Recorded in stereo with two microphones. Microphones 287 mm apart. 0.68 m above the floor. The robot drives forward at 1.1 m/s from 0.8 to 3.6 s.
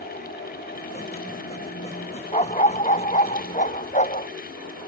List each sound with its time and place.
2.3 s a dog barking: 25° left (ahead or behind)